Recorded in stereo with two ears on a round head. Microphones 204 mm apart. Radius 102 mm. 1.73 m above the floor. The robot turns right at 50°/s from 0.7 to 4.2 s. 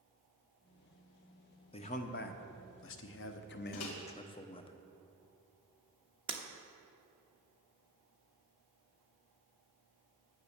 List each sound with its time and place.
1.7 s a man speaking: 30° left, 0.9 m; by 4.7 s 155° left, 0.9 m
3.7 s a microwave: 65° left (ahead or behind), 1.6 m; by 3.9 s 70° left (ahead or behind), 1.6 m
6.3 s breaking glass: 25° right (ahead or behind), 1.1 m